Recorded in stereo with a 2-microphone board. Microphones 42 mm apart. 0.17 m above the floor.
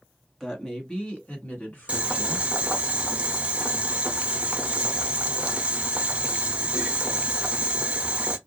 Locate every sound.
0.4 s a woman speaking: 15° left (ahead or behind), 1.4 m; by 2.5 s 55° left (ahead or behind), 2 m
1.9 s boiling: 30° right (ahead or behind), 0.7 m